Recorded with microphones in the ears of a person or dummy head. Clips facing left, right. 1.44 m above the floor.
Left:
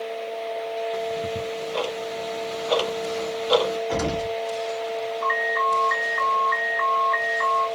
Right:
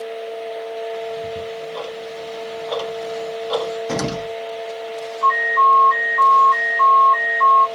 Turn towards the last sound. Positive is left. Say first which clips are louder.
# right 5 dB
turn(degrees=15)  # may be behind; listen again after turning